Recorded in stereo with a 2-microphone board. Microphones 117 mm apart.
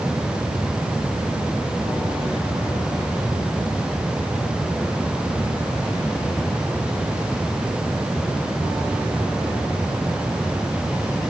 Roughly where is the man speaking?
I don't hear a man speaking.